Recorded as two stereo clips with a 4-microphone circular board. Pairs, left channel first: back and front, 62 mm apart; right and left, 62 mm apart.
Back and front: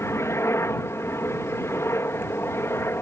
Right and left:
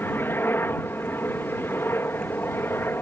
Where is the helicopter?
140° right.